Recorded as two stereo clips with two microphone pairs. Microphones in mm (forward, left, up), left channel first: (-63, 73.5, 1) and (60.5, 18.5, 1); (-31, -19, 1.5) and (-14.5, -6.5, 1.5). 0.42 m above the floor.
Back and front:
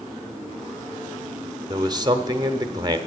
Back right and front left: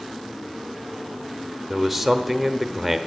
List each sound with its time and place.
1.7 s a man speaking: 55° right, 0.8 m